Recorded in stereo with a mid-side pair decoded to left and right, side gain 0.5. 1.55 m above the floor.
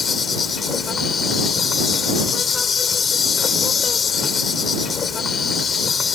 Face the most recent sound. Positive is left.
turn(degrees=40)